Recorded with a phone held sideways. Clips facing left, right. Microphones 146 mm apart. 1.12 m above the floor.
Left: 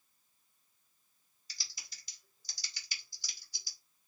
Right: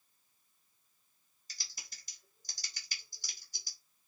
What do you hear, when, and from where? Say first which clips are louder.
1.5 s typing on a keyboard: right 1 dB; 45° right (ahead or behind), 1.4 m